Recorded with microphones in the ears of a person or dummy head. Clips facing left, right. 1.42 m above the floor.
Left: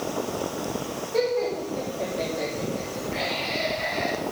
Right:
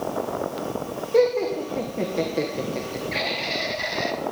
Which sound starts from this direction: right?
Laughter, at 1.1 s.